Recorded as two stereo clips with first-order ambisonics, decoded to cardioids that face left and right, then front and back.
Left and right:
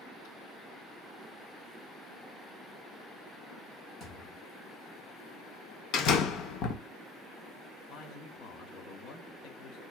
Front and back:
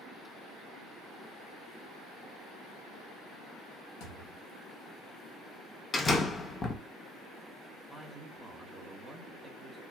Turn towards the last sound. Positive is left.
turn(degrees=105)